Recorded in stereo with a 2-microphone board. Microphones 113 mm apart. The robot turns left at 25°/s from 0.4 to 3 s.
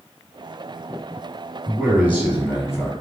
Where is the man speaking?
145° right, 1.6 m; by 2.9 s 175° right, 1.6 m.